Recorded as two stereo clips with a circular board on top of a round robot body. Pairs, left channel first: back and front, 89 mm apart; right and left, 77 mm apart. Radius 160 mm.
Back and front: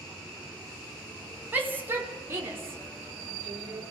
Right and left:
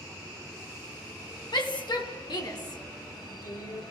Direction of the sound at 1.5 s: 70° right.